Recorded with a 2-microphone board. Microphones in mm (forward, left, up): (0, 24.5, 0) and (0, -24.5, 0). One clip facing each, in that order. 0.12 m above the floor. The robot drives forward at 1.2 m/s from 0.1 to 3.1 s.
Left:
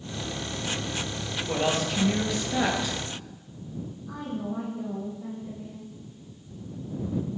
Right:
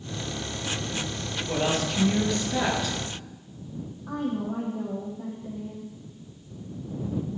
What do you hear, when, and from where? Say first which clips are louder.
1.5 s a woman speaking: even; 5° left (ahead or behind), 3 m
4.1 s a woman speaking: right 5 dB; 55° right (ahead or behind), 4.5 m